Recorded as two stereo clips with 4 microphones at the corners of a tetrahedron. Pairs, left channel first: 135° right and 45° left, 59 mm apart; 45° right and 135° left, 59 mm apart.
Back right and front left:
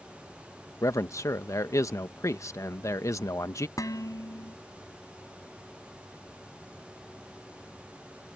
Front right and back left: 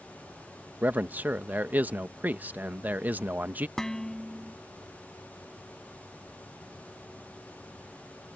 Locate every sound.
0.8 s a man speaking: 165° right
3.8 s dishes clattering: 125° right